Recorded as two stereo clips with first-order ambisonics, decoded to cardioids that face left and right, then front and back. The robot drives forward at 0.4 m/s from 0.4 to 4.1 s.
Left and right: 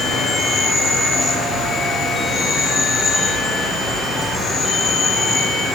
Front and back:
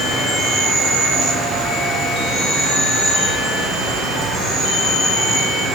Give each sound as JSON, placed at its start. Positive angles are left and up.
{"t": 0.0, "sound": "an insect", "azimuth_deg": 140, "distance_m": 2.5}